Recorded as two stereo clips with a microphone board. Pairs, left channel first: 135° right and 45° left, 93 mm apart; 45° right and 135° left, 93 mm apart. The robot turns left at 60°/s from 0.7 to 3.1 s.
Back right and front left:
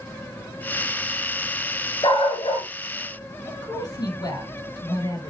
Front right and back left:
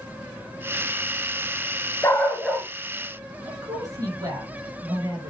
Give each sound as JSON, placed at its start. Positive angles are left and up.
{"t": 2.0, "sound": "a dog barking", "azimuth_deg": -105, "distance_m": 2.0}
{"t": 3.5, "sound": "a woman speaking", "azimuth_deg": -175, "distance_m": 5.5}